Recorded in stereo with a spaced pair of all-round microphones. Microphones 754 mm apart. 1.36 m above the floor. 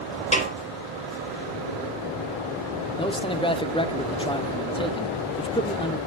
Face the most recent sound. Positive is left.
turn(degrees=10)  # may be behind; listen again after turning